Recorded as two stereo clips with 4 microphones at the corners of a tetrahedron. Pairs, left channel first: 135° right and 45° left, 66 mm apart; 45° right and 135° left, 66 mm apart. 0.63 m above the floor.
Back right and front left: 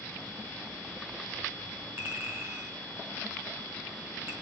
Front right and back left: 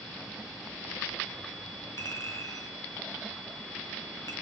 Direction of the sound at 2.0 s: 10° right.